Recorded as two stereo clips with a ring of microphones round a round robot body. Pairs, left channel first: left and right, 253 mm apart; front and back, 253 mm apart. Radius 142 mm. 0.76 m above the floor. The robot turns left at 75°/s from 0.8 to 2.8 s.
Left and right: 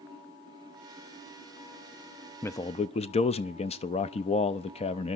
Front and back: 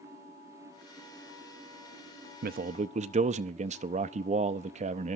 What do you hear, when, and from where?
2.4 s a man speaking: 165° left, 0.5 m; by 5.2 s 140° left, 0.5 m